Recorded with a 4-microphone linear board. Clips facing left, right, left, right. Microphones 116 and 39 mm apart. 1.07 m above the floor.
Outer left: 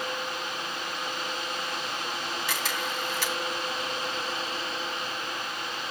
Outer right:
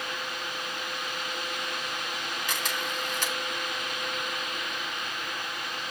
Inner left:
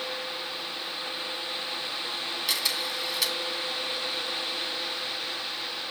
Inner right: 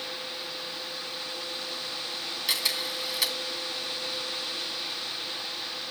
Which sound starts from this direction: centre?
A camera shutter, at 2.5 s.